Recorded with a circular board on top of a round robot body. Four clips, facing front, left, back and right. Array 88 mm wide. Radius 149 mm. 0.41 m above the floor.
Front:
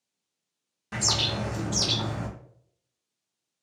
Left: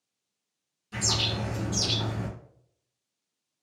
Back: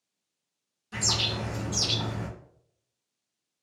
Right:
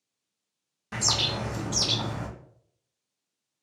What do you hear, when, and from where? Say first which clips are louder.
0.9 s a bird: right 1 dB, front 2 dB; 50° right, 0.6 m